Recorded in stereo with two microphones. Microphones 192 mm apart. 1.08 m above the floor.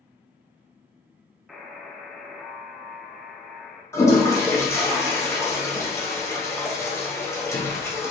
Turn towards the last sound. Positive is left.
turn(degrees=15)  # may be behind; listen again after turning